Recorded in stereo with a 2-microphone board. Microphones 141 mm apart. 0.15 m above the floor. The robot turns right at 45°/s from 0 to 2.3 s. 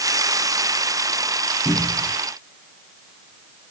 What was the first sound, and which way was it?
A cupboard door, 10° right (ahead or behind).